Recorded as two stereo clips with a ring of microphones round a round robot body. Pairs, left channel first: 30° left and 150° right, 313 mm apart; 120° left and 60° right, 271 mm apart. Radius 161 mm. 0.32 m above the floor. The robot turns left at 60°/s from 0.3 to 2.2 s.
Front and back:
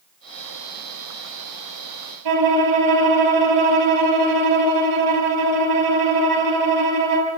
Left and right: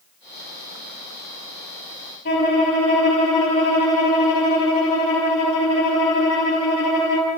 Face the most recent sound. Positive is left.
turn(degrees=-175)